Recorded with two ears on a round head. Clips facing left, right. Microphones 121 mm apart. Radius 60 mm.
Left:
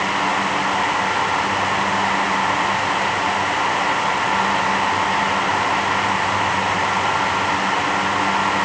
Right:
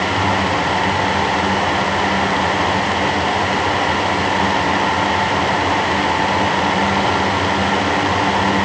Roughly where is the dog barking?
No dog barking in this recording.